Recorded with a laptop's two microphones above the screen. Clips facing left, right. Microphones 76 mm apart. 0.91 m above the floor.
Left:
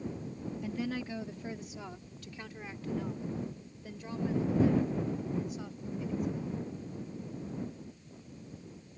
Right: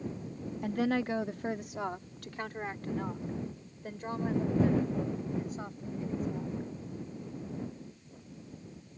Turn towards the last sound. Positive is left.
turn(degrees=-40)  # may be behind; listen again after turning